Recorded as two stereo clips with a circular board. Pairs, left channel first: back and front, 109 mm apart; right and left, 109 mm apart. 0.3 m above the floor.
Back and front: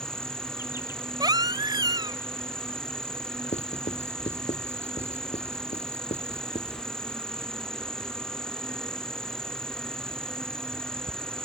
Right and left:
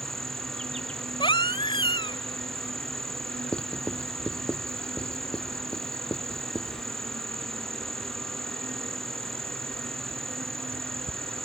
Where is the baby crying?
50° right.